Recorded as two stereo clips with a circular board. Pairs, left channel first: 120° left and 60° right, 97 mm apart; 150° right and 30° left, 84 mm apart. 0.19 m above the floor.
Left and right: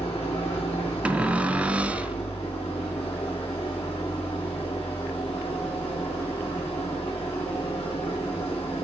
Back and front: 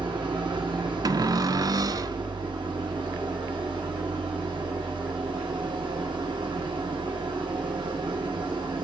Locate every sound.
0.0 s an engine running: 55° left, 8 m
1.1 s a cupboard door: 15° left, 1.1 m